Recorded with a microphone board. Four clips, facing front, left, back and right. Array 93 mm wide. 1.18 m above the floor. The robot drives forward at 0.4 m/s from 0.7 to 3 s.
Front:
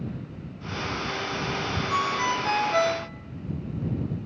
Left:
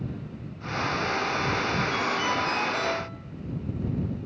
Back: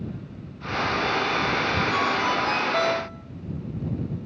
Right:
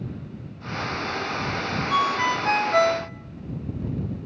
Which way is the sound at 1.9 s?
75° right.